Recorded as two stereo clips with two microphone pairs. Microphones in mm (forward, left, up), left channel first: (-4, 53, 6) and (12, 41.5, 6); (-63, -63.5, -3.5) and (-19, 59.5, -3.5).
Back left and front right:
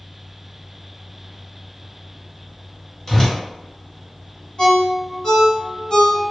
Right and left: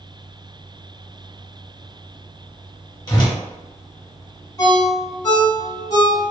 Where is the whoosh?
160° right, 1.4 m.